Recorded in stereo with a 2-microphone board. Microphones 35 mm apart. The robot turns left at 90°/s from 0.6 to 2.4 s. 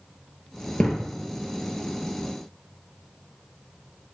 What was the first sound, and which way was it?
A thud, 35° left (ahead or behind).